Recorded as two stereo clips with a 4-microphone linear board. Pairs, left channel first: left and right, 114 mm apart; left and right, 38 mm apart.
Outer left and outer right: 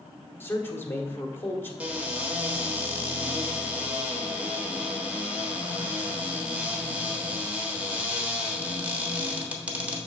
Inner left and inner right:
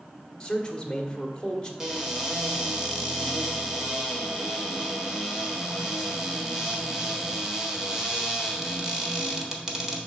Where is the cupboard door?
15° right (ahead or behind), 1.2 m.